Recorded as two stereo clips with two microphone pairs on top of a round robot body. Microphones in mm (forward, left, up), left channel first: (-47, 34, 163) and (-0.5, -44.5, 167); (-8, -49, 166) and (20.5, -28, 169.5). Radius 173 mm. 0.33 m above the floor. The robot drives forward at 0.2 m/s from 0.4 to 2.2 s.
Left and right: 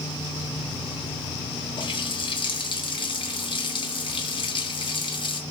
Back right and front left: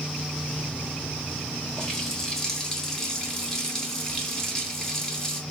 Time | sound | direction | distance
1.8 | a running tap | 140° left | 2.5 m